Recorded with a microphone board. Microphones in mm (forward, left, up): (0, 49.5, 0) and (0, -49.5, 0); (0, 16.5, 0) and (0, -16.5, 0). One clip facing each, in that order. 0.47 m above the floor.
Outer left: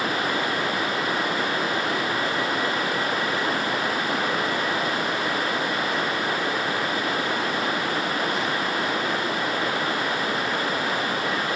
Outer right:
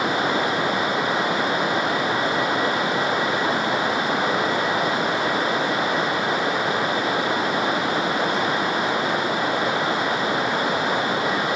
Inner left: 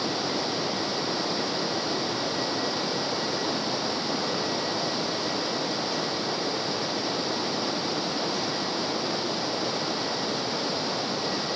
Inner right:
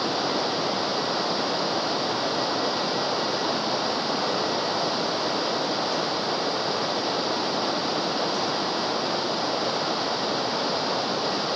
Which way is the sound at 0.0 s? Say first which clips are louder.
Outer right 4 dB, inner right 3 dB; 25° right (ahead or behind).